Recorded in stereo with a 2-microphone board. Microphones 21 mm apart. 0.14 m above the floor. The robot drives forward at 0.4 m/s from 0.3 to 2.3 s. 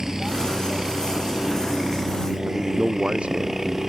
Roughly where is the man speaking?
Right.